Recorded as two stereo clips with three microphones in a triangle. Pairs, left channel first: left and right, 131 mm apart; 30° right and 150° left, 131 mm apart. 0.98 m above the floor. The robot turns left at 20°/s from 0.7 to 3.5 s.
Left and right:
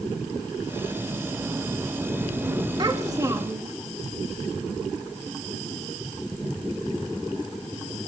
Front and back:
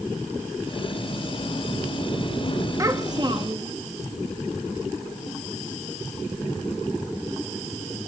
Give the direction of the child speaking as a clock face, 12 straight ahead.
5 o'clock.